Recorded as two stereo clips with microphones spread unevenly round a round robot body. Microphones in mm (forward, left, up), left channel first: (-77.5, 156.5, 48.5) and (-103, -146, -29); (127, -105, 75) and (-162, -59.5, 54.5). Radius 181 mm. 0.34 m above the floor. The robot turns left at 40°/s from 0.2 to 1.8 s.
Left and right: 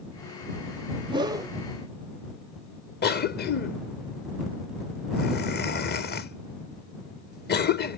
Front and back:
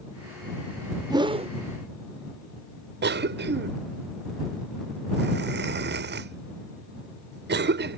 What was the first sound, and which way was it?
A whoosh, 125° right.